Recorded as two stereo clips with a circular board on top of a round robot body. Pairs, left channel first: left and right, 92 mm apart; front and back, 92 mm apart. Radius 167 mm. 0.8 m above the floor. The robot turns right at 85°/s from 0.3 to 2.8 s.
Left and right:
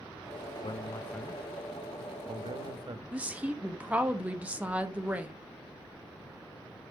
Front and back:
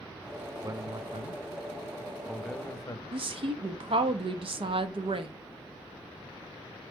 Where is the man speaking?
120° left, 0.9 m; by 3.0 s 55° right, 0.9 m.